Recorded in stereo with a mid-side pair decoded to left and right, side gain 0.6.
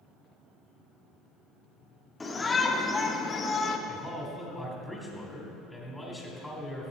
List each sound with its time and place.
2.2 s a shout: 15° left, 2 m; by 3.8 s 35° left, 1.4 m
3.9 s a man speaking: 5° left, 3.5 m